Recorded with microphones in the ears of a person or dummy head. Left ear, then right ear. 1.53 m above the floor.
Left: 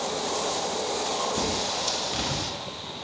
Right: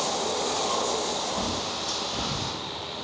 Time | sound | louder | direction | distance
1.4 | a bird | left 2 dB | 70° left (ahead or behind) | 0.8 m